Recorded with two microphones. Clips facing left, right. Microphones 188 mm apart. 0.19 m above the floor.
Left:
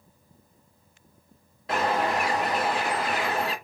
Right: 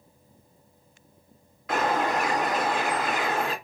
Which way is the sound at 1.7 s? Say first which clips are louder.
Even; 30° left (ahead or behind).